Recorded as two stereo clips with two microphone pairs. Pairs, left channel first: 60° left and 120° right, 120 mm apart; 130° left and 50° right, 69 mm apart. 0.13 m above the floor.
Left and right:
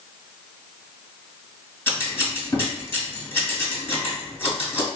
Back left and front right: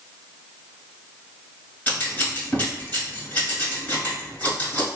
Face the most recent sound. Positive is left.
turn(degrees=100)